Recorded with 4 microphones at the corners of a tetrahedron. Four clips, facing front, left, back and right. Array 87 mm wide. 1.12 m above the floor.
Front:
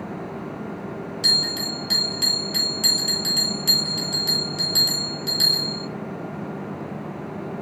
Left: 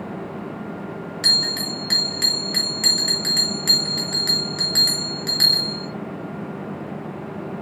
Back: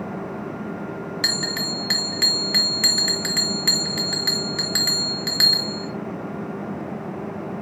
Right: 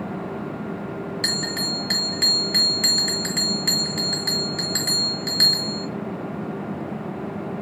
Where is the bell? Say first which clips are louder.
Left 4 dB, even; 165° left, 2.5 m.